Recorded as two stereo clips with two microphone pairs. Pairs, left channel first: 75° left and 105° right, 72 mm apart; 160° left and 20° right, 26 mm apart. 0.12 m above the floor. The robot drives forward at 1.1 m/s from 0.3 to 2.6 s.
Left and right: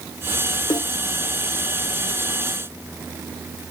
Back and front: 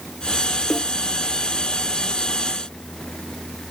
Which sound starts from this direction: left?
A snare drum, at 0.7 s.